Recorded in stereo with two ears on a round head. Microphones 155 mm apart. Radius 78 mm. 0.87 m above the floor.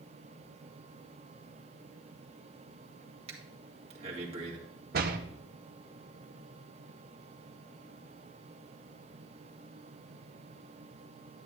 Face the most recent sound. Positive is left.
turn(degrees=-55)  # may be behind; listen again after turning